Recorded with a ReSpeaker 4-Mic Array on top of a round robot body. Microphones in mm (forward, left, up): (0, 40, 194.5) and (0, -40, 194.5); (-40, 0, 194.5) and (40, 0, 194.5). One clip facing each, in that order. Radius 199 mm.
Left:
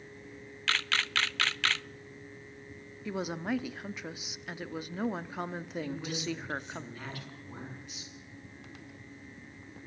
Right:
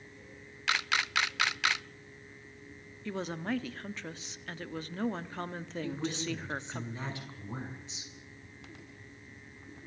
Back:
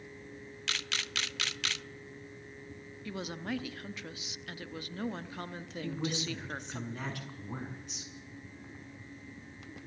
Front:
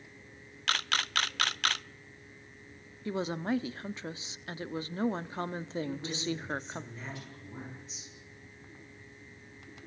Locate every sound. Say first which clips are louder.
0.7 s a camera shutter: right 1 dB, front 7 dB; 20° right, 0.6 m
3.0 s a woman speaking: left 1 dB, front 6 dB; 20° left, 1.2 m
5.8 s a woman speaking: right 4 dB, even; 155° right, 6.5 m